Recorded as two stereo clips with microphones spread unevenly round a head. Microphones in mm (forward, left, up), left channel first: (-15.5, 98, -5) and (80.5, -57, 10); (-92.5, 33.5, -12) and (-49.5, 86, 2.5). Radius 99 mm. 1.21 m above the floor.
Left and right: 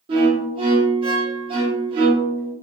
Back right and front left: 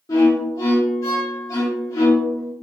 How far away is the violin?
About 0.8 m.